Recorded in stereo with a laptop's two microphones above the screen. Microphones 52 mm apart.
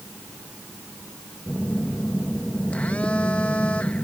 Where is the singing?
No singing in this recording.